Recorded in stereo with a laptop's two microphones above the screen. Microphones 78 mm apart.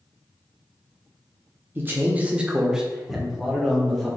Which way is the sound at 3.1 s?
35° left (ahead or behind).